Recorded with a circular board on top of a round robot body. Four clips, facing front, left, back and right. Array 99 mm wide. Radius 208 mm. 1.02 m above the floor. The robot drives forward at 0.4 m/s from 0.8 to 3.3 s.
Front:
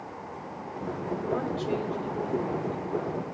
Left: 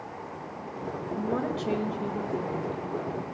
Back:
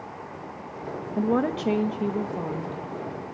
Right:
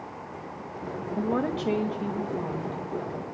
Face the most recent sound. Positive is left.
turn(degrees=-170)